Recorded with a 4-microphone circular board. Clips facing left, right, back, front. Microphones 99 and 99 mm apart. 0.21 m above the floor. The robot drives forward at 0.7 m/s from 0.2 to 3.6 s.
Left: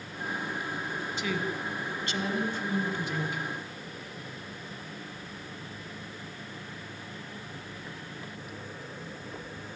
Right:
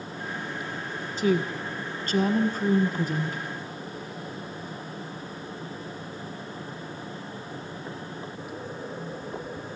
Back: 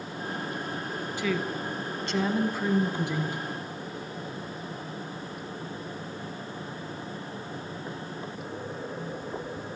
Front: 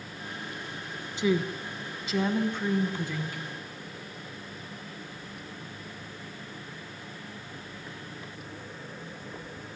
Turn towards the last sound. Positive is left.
turn(degrees=-125)